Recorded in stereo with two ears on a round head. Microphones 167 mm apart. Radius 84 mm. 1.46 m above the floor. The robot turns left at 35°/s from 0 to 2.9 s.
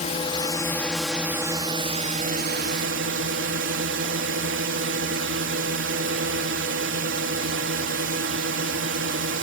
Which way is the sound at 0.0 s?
35° left.